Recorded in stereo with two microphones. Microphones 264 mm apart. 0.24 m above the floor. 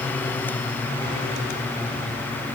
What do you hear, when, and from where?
Only background noise.